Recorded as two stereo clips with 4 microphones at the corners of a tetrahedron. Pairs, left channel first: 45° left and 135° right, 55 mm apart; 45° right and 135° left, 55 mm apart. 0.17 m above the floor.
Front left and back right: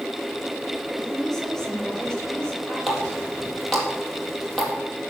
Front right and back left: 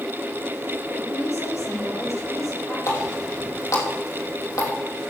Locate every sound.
0.9 s a woman speaking: 40° right, 5 m; by 2.8 s 25° right, 5 m
2.9 s a running tap: 45° right, 4 m